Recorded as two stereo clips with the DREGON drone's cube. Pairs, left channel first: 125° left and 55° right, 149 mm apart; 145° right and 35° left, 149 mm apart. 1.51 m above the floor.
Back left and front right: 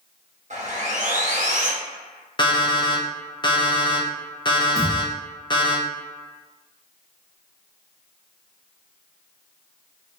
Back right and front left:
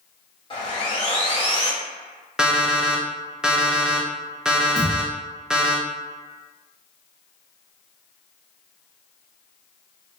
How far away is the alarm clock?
About 0.6 m.